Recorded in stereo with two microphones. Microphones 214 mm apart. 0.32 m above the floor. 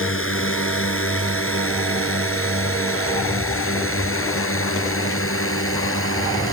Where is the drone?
75° left (ahead or behind).